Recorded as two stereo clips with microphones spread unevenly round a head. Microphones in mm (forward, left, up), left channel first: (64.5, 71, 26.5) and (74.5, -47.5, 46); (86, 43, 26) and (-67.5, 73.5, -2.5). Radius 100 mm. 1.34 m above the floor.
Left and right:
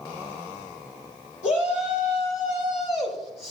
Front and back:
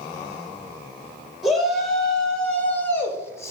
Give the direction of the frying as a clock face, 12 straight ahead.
I don't hear frying.